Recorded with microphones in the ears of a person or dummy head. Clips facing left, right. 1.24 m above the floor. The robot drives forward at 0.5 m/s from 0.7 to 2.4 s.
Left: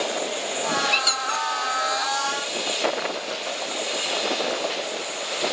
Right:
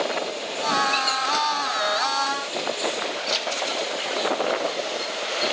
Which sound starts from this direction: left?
A squeak, at 0.9 s.